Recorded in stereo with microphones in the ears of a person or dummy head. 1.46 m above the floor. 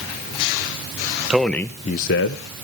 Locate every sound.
1.3 s a man speaking: 5° right (ahead or behind), 0.9 m; by 2.6 s 60° left (ahead or behind), 0.9 m